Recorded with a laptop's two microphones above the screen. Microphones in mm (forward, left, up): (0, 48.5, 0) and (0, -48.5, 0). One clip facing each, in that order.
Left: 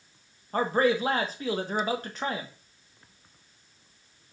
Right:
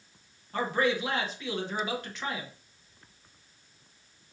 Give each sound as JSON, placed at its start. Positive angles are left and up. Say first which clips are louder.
{"t": 0.5, "sound": "a man speaking", "louder": "left 4 dB", "side_deg": 45, "distance_m": 1.1}